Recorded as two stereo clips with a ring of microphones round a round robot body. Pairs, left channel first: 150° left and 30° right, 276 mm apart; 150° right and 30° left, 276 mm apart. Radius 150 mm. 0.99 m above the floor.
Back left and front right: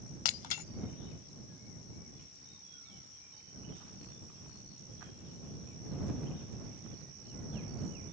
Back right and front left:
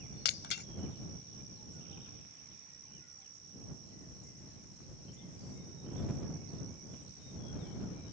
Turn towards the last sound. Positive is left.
turn(degrees=155)